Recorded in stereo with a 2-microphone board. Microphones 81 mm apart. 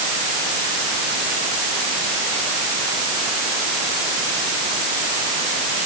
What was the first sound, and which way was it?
Only background noise.